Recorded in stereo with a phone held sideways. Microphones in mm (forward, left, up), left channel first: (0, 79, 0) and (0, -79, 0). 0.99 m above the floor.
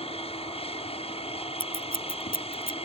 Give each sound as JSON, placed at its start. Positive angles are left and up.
{"t": 0.0, "sound": "an aircraft", "side_deg": 40}
{"t": 1.6, "sound": "scissors", "side_deg": 70}